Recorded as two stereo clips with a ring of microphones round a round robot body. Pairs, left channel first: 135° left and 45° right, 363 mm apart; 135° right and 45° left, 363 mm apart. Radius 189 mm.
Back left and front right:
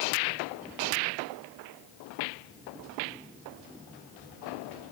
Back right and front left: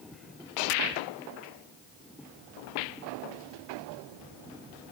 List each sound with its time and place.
Only background noise.